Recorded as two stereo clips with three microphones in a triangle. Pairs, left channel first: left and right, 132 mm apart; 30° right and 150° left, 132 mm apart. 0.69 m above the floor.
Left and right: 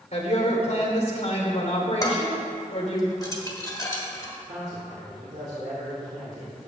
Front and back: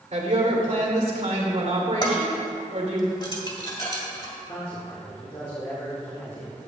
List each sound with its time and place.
0.1 s a woman speaking: 125° left, 2 m
2.0 s dishes clattering: 25° left, 1.7 m
4.5 s a man speaking: 80° right, 2.5 m